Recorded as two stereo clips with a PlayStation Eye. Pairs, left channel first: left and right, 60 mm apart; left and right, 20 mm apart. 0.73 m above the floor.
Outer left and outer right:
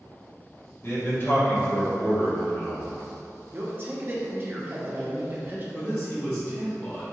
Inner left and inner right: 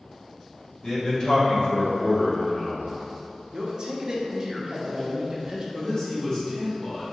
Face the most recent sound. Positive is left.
turn(degrees=35)  # may be behind; listen again after turning